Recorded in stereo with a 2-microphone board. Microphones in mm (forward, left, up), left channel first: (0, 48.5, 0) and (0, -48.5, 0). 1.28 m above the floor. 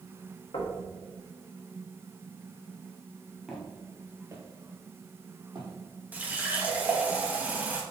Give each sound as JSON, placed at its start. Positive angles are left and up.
{"t": 0.5, "sound": "knocking", "side_deg": 70, "distance_m": 1.1}
{"t": 3.5, "sound": "footsteps", "side_deg": -5, "distance_m": 1.8}
{"t": 6.1, "sound": "a running tap", "side_deg": -15, "distance_m": 1.1}